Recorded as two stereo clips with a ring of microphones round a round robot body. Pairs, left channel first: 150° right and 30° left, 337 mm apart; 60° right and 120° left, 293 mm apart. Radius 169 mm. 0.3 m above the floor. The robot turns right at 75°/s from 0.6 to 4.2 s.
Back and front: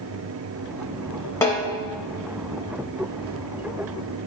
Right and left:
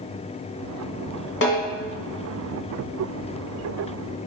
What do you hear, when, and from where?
1.4 s a snare drum: 75° right, 1.0 m; by 1.6 s 55° right, 1.0 m